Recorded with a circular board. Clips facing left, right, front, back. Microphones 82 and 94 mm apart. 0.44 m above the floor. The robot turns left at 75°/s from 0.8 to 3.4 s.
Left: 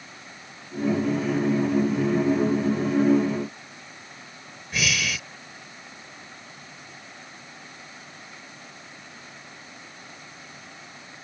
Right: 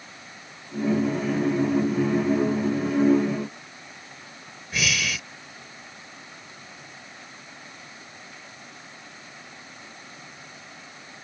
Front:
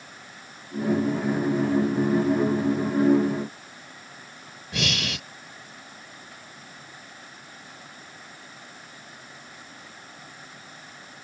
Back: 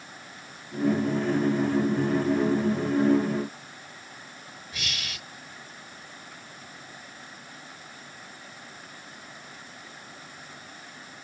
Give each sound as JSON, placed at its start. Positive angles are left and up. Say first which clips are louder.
{"t": 4.7, "sound": "breathing", "louder": "even, front 10 dB", "azimuth_deg": 0}